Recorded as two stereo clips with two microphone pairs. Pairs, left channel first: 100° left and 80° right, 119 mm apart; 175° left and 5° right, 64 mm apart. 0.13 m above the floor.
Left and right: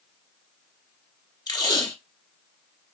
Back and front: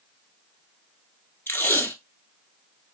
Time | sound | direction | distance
1.5 | tape being pulled | 135° left | 1.2 m